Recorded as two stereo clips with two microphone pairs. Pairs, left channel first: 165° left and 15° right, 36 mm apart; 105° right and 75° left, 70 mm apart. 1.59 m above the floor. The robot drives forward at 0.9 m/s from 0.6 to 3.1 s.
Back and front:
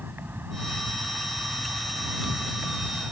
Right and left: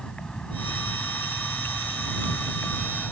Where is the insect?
30° right.